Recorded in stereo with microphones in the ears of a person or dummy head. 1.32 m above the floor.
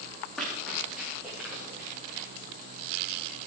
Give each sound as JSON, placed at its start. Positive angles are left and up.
{"t": 0.4, "sound": "running footsteps", "side_deg": 5, "distance_m": 5.0}